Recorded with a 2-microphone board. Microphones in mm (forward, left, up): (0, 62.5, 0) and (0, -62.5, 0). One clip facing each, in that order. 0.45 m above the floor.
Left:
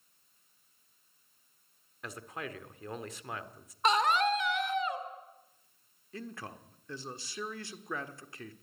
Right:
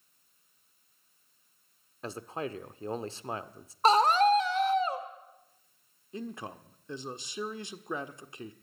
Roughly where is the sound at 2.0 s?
Right.